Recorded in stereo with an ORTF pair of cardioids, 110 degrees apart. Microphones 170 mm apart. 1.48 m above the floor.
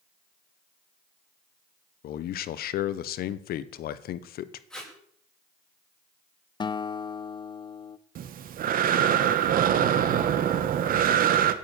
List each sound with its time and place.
2.0 s a man speaking: 65° left, 1.2 m
4.7 s tape being pulled: 5° left, 8 m
6.6 s a guitar: 25° left, 0.9 m
8.2 s breathing: 60° right, 1.7 m